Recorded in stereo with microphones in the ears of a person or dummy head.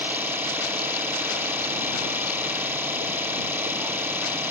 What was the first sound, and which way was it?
An engine running, 5° right (ahead or behind).